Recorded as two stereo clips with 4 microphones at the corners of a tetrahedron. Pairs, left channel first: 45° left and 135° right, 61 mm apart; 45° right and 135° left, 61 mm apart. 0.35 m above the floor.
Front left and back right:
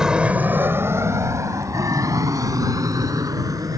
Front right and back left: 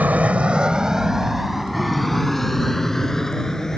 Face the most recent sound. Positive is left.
turn(degrees=-125)